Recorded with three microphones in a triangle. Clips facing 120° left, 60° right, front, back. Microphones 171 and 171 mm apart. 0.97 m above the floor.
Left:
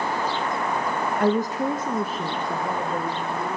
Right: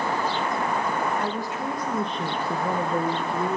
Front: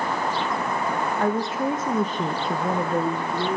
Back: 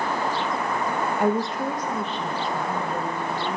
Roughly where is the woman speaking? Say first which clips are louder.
Left 7 dB, back 1 dB; left.